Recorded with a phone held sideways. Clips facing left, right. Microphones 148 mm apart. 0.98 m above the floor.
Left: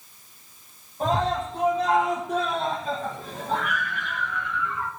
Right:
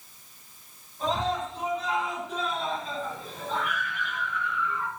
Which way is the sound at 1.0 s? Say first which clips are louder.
Left 4 dB; 55° left (ahead or behind).